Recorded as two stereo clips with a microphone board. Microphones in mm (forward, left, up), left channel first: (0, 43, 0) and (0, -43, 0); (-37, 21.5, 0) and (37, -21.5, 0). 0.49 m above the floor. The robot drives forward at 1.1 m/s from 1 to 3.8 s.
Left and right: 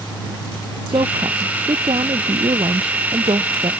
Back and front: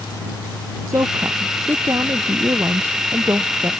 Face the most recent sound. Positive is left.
turn(degrees=-90)